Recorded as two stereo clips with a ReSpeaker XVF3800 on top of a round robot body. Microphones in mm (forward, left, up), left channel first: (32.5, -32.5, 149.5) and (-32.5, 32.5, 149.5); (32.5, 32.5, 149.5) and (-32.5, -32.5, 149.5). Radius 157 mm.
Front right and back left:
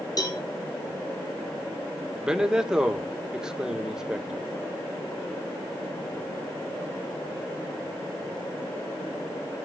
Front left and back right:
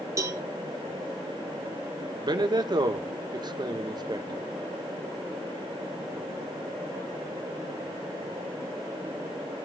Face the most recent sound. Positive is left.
turn(degrees=-145)